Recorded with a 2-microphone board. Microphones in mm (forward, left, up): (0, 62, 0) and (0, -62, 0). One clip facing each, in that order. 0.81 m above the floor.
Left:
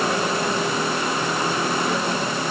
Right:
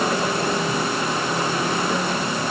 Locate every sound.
Only background noise.